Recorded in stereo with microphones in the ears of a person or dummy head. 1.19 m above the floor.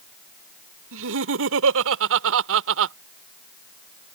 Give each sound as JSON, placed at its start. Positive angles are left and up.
{"t": 0.9, "sound": "laughter", "side_deg": -70}